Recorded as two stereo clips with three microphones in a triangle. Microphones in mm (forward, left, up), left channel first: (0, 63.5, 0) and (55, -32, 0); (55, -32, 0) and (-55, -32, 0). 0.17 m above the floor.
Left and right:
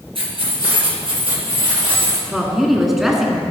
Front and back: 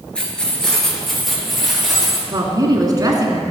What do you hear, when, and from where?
0.1 s keys jangling: 80° right, 2.5 m; by 2.2 s 95° right, 3.5 m
2.3 s a woman speaking: 145° right, 1.6 m